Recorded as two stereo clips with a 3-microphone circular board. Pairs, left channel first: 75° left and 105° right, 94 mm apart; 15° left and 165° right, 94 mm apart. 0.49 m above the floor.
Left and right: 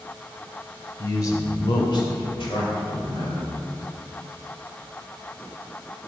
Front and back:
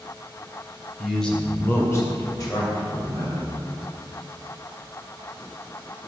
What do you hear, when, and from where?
1.0 s a man speaking: 110° left, 1.5 m; by 3.6 s 45° left, 3.5 m